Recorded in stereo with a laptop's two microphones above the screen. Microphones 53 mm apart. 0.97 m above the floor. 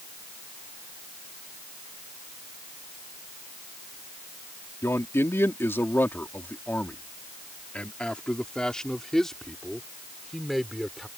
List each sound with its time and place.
4.8 s a man speaking: 60° left (ahead or behind); by 11.1 s 5° right (ahead or behind)